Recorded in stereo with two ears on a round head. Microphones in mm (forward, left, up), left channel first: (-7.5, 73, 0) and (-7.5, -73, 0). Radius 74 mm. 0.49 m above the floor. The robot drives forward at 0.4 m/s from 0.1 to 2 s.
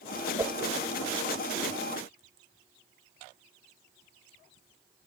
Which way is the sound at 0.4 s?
20° right (ahead or behind).